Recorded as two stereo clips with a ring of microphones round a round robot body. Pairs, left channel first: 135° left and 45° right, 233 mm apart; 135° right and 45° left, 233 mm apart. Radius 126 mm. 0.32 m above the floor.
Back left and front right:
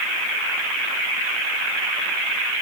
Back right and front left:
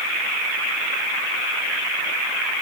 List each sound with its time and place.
Only background noise.